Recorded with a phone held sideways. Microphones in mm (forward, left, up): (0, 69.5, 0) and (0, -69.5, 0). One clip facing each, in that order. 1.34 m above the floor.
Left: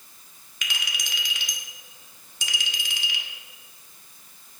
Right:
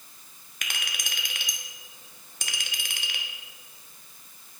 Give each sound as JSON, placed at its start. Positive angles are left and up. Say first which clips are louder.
{"t": 0.6, "sound": "a clink", "louder": "left 2 dB", "side_deg": -50, "distance_m": 1.0}